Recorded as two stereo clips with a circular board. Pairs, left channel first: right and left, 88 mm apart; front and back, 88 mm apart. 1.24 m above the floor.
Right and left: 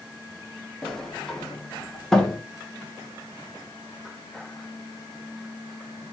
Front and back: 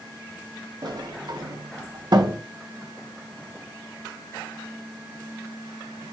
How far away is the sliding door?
About 0.6 m.